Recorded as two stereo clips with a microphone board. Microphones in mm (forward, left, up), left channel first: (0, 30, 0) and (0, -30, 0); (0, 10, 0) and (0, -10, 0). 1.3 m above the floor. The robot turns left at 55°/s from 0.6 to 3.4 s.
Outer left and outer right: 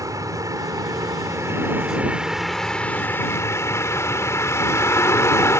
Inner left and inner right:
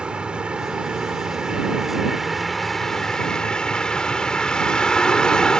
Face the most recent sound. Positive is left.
turn(degrees=130)